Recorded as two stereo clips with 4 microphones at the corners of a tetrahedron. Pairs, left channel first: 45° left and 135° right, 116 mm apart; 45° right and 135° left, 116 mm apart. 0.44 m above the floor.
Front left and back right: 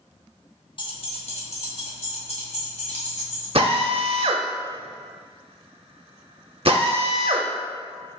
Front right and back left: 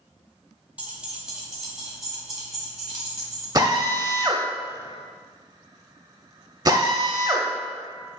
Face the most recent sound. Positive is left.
turn(degrees=-170)